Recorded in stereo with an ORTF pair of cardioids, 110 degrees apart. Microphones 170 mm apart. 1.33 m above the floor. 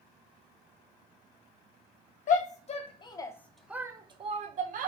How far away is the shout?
About 1.0 m.